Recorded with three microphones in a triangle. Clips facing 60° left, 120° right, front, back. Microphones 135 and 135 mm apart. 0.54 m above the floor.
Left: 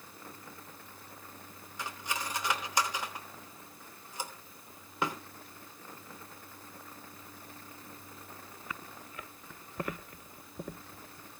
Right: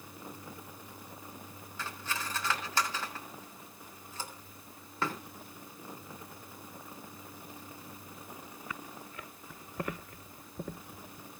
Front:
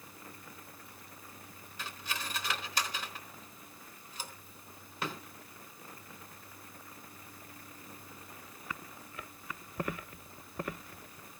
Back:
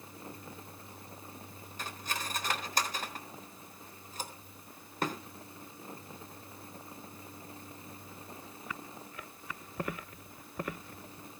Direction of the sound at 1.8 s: 135° left.